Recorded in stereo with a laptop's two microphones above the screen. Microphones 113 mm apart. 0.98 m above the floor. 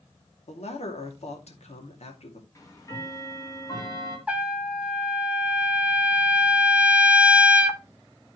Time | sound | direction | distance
0.5 | a man speaking | 75° left (ahead or behind) | 2.5 m
2.5 | ticking | 30° left (ahead or behind) | 2.5 m
4.3 | a trumpet | 10° right (ahead or behind) | 1.3 m